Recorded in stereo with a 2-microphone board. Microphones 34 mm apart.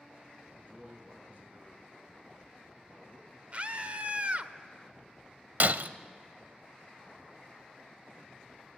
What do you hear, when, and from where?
0.5 s a man speaking: 55° right (ahead or behind), 6.5 m
3.5 s a scream: 40° right (ahead or behind), 1.1 m
5.6 s breaking glass: 60° right (ahead or behind), 0.6 m